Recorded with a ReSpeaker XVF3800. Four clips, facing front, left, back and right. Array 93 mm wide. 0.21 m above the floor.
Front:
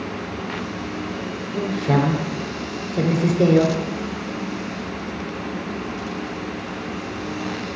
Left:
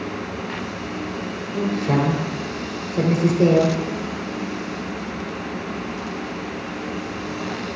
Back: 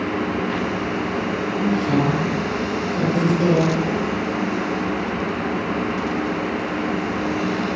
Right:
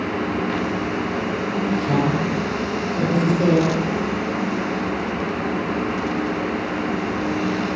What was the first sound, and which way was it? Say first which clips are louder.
A woman speaking: left 1 dB, even; 10° left.